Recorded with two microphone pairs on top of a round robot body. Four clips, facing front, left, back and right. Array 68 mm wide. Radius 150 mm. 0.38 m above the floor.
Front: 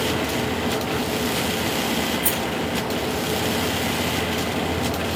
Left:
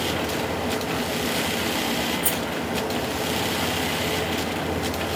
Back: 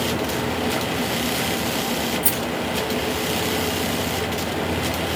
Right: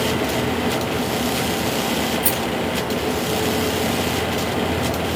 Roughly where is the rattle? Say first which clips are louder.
Right 4 dB, front 1 dB; right.